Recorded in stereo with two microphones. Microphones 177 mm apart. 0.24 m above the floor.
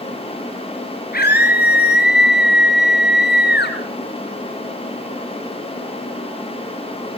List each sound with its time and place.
1.1 s a scream: 60° left (ahead or behind), 3 m; by 3.8 s 70° left (ahead or behind), 3 m